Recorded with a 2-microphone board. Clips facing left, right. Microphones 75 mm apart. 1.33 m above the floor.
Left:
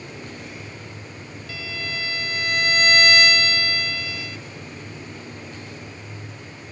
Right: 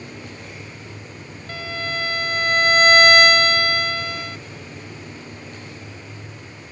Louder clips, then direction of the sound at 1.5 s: Right 5 dB; 45° right (ahead or behind).